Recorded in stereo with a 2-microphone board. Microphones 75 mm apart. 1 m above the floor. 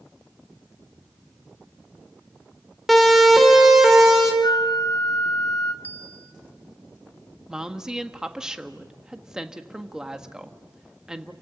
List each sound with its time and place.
2.9 s a siren: centre (ahead or behind), 4 m; by 4.3 s 10° right (ahead or behind), 4.5 m
4.4 s a flute: 60° left (ahead or behind), 1.5 m
5.8 s a bell: 20° left (ahead or behind), 1.5 m
7.5 s a woman speaking: 10° right (ahead or behind), 1.5 m